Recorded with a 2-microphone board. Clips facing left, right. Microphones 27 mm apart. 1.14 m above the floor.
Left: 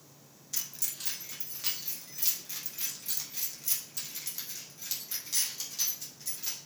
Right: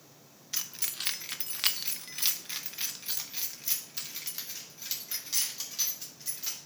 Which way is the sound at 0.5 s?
40° right (ahead or behind).